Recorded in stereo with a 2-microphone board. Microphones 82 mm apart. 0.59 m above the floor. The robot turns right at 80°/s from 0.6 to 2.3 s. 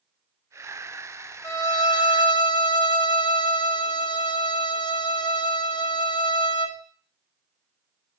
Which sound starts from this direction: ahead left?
A violin, at 1.4 s.